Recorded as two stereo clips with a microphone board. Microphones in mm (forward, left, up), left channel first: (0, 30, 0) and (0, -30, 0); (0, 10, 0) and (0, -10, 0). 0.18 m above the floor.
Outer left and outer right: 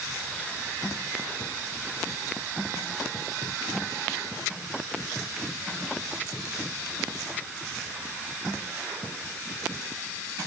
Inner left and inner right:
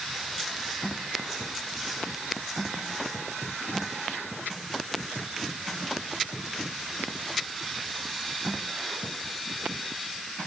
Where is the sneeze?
I don't hear a sneeze.